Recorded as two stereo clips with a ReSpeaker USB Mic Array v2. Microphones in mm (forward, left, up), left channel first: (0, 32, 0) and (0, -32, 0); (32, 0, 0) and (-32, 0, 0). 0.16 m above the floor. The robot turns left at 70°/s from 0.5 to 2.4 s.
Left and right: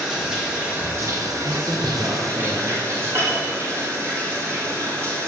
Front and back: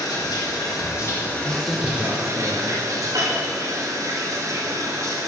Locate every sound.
0.0 s running water: 10° right, 7.5 m; by 5.3 s 140° right, 7.5 m
1.4 s a man speaking: 35° right, 2.5 m; by 2.8 s 100° right, 2.5 m
3.1 s a piano: 150° right, 7 m